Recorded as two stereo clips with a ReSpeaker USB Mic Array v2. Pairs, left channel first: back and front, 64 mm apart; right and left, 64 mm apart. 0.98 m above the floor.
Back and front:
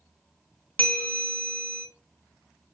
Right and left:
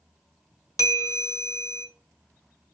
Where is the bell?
115° right, 1.7 m.